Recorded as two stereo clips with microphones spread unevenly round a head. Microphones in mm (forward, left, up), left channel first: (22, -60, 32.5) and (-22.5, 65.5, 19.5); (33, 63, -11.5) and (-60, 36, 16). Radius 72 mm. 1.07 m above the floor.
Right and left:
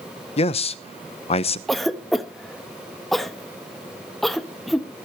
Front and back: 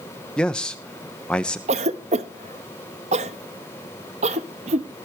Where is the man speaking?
45° right, 0.9 m.